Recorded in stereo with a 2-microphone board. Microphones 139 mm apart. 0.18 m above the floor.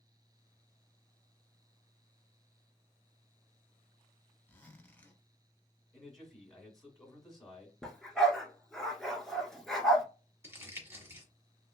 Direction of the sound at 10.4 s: 15° right (ahead or behind).